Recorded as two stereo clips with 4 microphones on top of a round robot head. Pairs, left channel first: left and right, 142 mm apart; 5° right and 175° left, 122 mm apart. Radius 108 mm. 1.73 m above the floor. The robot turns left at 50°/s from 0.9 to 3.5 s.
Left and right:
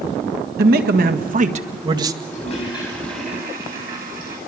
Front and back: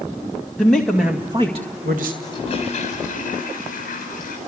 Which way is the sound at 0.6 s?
95° right.